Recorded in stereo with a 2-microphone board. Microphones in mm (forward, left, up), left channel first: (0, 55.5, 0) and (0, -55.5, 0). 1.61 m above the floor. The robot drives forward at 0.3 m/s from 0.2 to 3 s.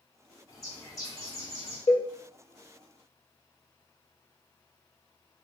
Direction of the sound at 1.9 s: 60° left (ahead or behind).